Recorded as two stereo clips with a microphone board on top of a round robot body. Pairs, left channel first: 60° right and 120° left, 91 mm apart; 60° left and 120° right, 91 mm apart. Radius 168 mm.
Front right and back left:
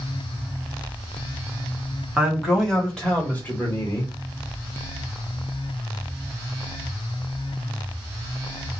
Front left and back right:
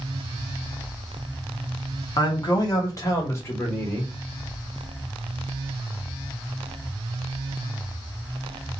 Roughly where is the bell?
I don't hear a bell.